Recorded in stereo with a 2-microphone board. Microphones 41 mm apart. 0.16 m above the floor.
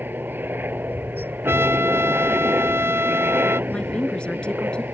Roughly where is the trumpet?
Right.